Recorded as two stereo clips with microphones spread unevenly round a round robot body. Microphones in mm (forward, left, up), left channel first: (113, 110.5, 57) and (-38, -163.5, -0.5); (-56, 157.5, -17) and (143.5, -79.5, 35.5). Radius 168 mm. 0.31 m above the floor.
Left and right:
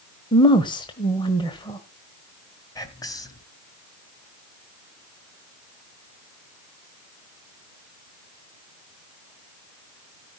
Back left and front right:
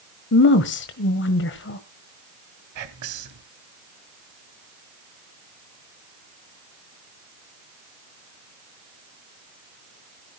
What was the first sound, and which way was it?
A woman speaking, 145° left.